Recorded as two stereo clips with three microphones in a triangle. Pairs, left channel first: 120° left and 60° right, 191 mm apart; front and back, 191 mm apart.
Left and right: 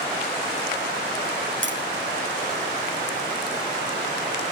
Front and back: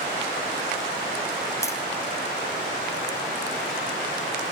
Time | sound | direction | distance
1.6 | tapping | 75° right | 4 m